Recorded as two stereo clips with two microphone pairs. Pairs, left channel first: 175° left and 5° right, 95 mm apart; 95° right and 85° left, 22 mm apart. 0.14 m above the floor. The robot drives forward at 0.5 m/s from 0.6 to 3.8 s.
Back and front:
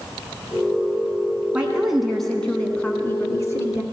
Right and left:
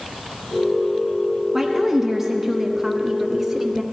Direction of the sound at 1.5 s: 45° left.